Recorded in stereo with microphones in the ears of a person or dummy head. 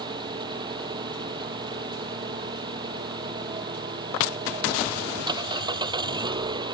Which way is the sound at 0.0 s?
25° right (ahead or behind).